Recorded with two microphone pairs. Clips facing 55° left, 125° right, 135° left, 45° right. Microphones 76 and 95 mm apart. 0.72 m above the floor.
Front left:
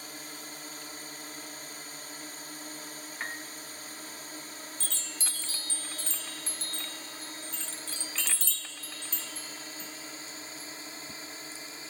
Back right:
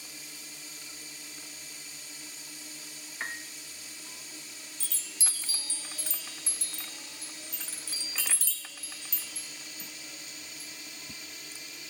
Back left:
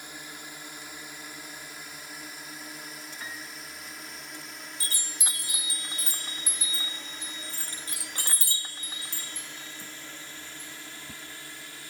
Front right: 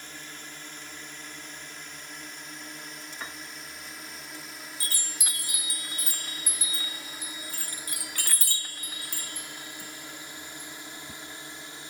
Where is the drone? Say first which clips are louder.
Front left 5 dB, back left 1 dB; 60° left; by 11.9 s 15° left.